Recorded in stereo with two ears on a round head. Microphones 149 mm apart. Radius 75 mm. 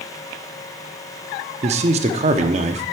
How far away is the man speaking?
About 0.8 m.